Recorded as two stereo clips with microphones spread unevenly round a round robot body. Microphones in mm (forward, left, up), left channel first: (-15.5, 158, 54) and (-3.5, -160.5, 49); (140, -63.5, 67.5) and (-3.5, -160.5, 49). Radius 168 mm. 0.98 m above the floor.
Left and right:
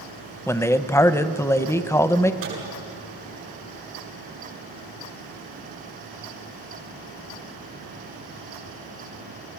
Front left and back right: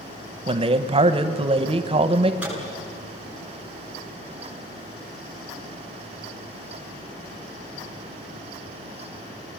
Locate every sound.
0.5 s a man speaking: 170° left, 0.8 m
2.4 s a microwave: 65° right, 9.5 m